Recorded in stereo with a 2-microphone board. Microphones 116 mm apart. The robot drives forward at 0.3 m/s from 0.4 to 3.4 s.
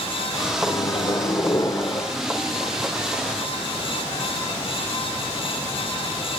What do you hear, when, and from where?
0.6 s a microwave: 40° left (ahead or behind), 0.6 m; by 2.1 s 25° left (ahead or behind), 0.9 m